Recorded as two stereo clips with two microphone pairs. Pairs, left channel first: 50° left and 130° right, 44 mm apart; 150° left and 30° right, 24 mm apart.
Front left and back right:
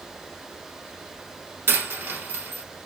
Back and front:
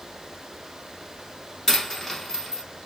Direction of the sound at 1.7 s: 140° right.